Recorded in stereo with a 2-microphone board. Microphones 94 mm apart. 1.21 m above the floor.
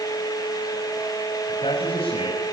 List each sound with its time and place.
1.5 s a man speaking: 75° left (ahead or behind), 6.5 m